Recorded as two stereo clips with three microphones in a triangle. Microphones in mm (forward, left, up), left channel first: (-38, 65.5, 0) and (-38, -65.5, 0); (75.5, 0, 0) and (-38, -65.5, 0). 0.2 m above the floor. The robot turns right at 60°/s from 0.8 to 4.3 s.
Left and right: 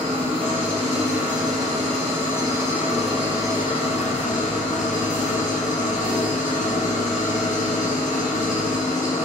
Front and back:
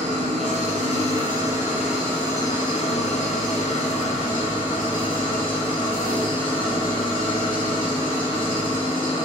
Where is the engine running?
130° right, 3 m; by 9.2 s 80° left, 3 m.